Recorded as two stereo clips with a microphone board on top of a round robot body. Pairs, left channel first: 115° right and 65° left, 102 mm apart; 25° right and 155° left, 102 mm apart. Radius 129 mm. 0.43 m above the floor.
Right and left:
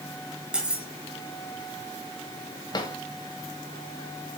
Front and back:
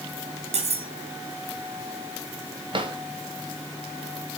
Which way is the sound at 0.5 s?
150° left.